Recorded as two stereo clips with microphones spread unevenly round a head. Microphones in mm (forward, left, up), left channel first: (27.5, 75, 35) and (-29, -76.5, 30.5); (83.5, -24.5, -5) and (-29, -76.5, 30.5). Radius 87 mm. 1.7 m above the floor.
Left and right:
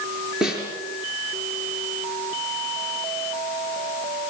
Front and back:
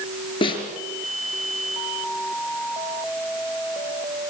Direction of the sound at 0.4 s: 25° right.